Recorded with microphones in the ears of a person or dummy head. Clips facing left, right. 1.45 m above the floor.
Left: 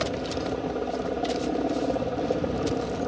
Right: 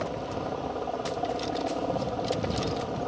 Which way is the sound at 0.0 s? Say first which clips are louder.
Left 4 dB; 25° left (ahead or behind).